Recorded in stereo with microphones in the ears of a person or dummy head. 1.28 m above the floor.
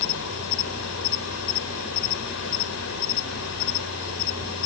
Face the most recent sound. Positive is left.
turn(degrees=80)